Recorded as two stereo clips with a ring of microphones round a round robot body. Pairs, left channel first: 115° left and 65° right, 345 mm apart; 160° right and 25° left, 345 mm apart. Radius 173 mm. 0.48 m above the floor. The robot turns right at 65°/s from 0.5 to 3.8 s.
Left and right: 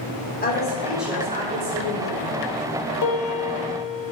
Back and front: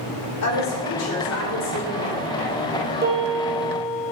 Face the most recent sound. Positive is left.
turn(degrees=135)